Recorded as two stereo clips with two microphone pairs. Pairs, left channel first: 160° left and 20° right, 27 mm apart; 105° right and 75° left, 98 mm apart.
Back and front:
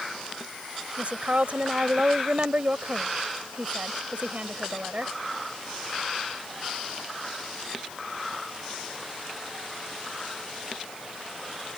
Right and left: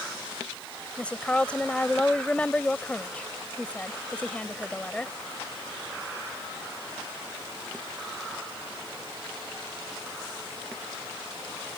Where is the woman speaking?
30° right.